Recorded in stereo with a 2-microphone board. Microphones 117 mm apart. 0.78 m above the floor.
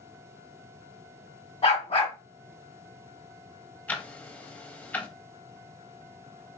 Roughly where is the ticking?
Centre.